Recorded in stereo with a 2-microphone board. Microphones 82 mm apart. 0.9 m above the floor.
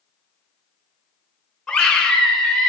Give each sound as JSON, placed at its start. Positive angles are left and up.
{"t": 1.7, "sound": "a scream", "side_deg": 5, "distance_m": 4.5}